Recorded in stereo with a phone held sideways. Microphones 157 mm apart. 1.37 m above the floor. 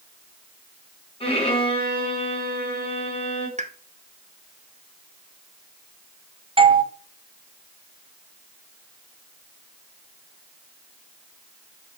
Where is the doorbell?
30° right (ahead or behind), 0.7 m.